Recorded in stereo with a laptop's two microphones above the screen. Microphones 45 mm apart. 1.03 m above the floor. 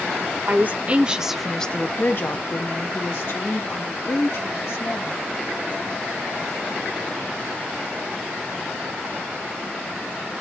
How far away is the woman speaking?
About 0.9 m.